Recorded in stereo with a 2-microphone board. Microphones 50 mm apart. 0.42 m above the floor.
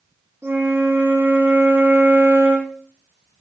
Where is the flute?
70° right (ahead or behind), 1.1 m.